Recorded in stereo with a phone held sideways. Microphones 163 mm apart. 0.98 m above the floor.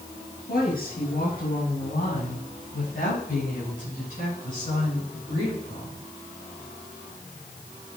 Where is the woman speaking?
65° left (ahead or behind), 6 m; by 6.0 s 50° left (ahead or behind), 10 m.